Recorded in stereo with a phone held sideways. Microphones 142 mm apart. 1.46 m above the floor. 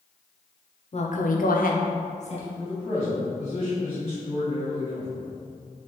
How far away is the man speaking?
About 1.5 m.